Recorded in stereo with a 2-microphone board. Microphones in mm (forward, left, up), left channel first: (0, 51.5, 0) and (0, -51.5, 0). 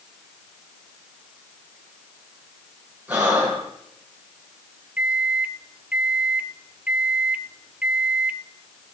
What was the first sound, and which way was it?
Breathing, 15° right (ahead or behind).